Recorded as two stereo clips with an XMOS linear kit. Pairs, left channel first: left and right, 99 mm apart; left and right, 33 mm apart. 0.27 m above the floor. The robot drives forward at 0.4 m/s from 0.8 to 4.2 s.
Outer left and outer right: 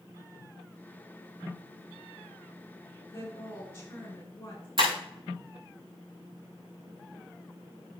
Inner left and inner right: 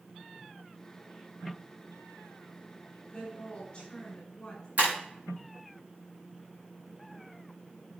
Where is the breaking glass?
60° right (ahead or behind), 4.5 m.